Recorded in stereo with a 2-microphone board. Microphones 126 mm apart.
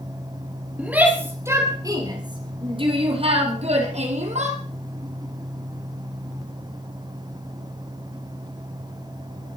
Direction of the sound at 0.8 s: 10° right (ahead or behind).